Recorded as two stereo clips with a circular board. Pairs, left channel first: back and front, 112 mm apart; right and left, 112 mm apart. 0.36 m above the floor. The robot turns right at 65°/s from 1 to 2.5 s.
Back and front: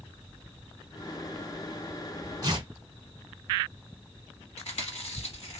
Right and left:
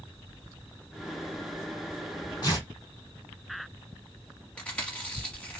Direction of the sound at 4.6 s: 165° right.